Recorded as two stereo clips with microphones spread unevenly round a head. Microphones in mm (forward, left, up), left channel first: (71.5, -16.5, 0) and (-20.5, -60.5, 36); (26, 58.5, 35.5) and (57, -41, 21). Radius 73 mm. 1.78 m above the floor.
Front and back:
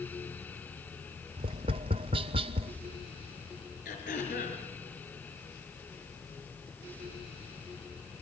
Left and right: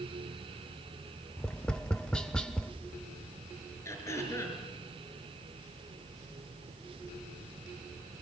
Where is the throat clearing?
50° left, 5 m.